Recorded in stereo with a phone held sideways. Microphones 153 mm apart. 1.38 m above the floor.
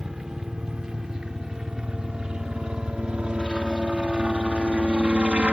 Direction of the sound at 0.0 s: 5° right (ahead or behind).